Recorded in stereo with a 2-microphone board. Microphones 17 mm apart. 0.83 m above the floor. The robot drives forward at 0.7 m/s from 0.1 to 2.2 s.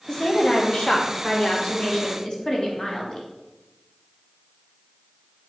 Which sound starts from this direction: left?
A woman speaking, at 0.1 s.